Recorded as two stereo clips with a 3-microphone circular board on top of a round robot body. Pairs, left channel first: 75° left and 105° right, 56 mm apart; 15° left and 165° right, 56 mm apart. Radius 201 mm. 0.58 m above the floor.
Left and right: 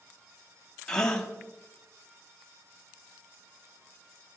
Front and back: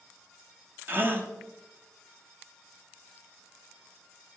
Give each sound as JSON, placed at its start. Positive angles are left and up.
{"t": 0.9, "sound": "a gasp", "azimuth_deg": 150, "distance_m": 1.7}